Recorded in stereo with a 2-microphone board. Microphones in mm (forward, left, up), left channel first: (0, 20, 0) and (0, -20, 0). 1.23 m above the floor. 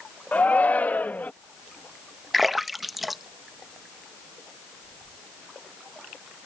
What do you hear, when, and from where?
0.3 s a shout: 45° left (ahead or behind); by 1.3 s 50° left (ahead or behind)
2.3 s a splash: 5° right (ahead or behind)